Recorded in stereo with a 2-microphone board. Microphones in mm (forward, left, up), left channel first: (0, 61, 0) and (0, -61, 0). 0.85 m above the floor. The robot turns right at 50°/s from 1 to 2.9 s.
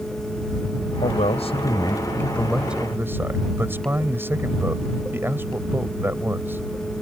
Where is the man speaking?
105° left; by 6.7 s 160° right.